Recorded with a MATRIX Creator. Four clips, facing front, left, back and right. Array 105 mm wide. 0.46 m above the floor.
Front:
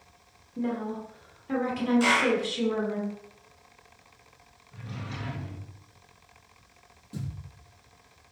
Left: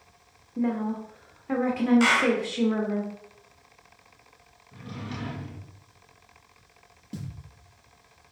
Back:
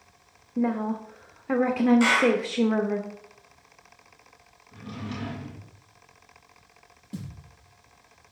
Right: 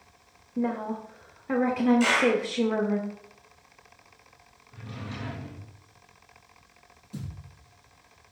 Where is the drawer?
135° left, 3 m.